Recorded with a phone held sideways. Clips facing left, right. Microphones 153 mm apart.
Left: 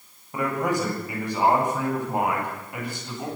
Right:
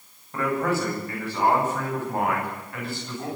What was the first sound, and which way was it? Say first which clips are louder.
A man speaking: even; 15° left (ahead or behind).